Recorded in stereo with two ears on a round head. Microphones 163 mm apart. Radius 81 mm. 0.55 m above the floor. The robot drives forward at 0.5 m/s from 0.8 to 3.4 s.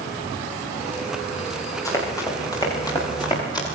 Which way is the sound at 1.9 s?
15° left (ahead or behind).